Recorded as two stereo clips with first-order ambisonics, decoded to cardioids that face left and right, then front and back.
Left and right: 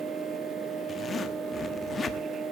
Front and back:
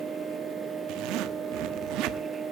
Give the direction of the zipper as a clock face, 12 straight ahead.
7 o'clock.